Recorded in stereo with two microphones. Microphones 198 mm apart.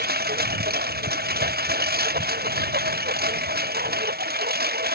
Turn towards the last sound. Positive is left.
turn(degrees=-50)  # may be behind; listen again after turning